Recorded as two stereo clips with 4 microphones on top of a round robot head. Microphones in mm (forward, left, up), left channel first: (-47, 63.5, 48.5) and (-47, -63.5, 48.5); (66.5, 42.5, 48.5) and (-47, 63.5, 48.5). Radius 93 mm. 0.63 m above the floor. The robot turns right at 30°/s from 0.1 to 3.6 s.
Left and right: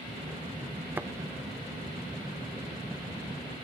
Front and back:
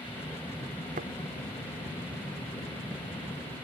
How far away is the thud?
About 0.6 m.